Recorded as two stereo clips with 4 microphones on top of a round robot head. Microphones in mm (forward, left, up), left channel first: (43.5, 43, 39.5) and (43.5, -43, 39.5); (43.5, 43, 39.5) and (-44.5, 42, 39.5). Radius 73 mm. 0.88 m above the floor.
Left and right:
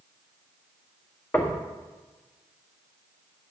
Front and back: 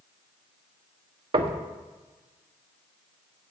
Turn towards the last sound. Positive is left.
turn(degrees=160)